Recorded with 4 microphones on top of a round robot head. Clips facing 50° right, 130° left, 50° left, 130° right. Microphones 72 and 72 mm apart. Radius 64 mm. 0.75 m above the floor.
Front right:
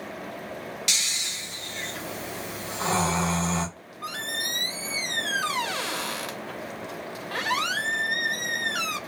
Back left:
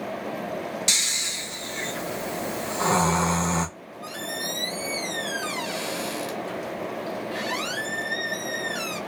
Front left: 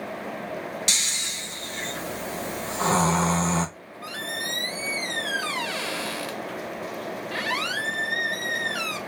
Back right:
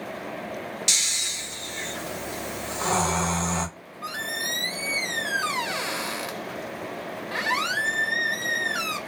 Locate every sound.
0.9 s snoring: 80° left, 1.7 m
3.8 s a squeak: 60° right, 0.8 m